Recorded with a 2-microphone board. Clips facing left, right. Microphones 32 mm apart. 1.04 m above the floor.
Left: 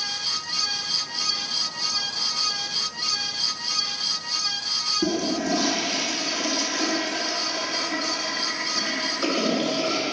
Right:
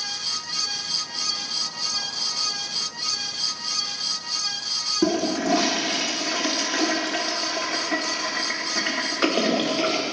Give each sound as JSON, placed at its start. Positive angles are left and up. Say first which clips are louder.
{"t": 5.0, "sound": "a toilet flushing", "louder": "right 5 dB", "side_deg": -80, "distance_m": 1.3}